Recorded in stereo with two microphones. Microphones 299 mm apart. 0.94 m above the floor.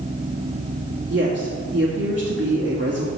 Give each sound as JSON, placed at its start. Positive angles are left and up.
{"t": 1.1, "sound": "a woman speaking", "side_deg": -40, "distance_m": 1.7}